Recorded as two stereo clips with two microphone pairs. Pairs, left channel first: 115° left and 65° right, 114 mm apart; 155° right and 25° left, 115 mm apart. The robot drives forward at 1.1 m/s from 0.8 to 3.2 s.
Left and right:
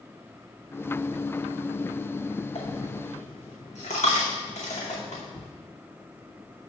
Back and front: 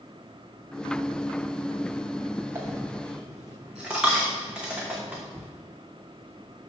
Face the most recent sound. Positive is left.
turn(degrees=110)